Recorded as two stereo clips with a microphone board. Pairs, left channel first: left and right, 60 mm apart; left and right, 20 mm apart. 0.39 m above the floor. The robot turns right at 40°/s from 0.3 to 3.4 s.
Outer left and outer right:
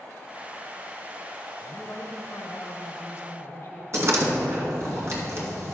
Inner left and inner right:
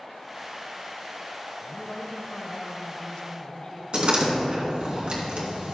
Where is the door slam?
55° right (ahead or behind), 2.5 m.